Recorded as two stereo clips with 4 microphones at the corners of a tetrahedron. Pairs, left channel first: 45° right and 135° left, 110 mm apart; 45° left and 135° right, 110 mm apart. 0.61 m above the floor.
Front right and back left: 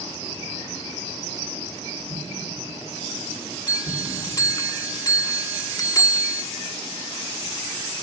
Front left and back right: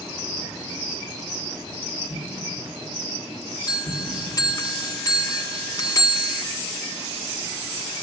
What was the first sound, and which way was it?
An explosion, 45° right.